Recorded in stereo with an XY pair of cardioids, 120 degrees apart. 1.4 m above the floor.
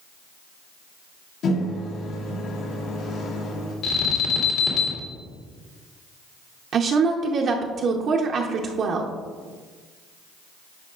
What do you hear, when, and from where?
1.4 s a microwave: 70° left, 1.8 m
3.8 s an alarm: 65° left, 2 m
6.7 s a woman speaking: 50° right, 0.7 m